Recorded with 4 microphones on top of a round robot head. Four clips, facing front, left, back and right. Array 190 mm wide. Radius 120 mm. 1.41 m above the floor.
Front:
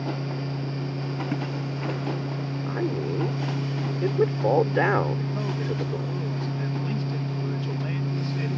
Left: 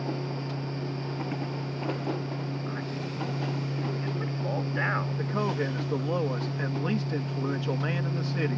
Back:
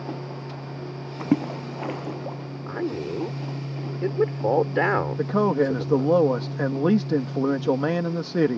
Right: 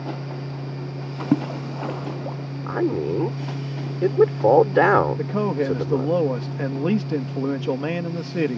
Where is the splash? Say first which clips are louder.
Right 15 dB, back 9 dB; 125° right.